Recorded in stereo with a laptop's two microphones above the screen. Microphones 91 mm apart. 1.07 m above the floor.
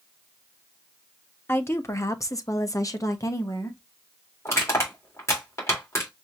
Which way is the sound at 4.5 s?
30° left (ahead or behind).